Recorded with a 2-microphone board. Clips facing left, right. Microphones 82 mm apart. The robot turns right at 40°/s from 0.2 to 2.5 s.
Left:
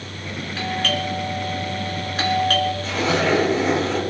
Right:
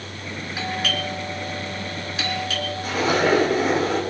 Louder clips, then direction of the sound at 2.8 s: Even; 10° right (ahead or behind).